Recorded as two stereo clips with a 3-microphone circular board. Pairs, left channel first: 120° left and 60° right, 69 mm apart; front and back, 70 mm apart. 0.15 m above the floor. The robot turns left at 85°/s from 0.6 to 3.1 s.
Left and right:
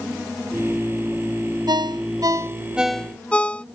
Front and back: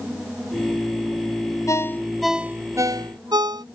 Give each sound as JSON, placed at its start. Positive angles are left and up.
{"t": 1.7, "sound": "a ringtone", "azimuth_deg": -45}